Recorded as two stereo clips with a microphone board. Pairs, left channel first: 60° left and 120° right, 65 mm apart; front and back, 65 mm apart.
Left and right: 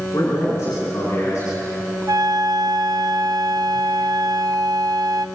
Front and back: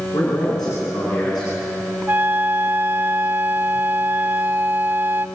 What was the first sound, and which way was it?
A man speaking, 10° left.